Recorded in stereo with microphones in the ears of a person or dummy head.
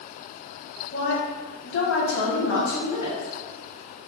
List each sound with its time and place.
0.9 s a woman speaking: 45° left (ahead or behind), 1.3 m; by 3.3 s 50° left (ahead or behind), 1.7 m